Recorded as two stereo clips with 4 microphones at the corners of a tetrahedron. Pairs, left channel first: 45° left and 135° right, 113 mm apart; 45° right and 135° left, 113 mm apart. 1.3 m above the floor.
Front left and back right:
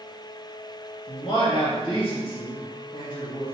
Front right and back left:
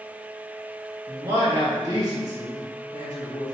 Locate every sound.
1.1 s a man speaking: 90° left, 1.8 m